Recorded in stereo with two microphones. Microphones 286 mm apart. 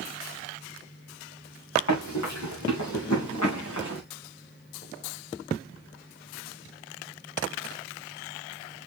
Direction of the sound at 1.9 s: 80° left.